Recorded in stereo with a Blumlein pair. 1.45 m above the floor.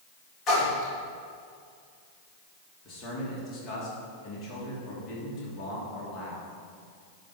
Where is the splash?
30° left, 3 m.